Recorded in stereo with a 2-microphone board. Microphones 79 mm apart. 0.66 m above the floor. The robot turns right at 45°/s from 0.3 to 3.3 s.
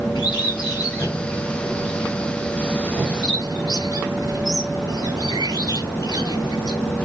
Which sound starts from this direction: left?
A bird, at 0.1 s.